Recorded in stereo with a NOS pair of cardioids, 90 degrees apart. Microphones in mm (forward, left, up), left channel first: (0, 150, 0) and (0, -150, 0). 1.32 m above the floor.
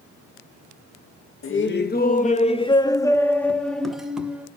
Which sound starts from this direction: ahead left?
Laughter, at 1.4 s.